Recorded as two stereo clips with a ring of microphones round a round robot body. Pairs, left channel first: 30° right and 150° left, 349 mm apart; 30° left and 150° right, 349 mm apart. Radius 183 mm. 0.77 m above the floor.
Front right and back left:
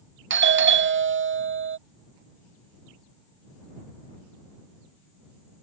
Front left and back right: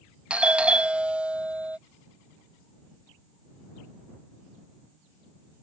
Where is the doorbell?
125° left.